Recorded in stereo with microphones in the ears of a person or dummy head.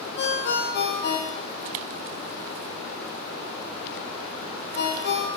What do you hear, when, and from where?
0.2 s a ringtone: 45° left (ahead or behind), 0.6 m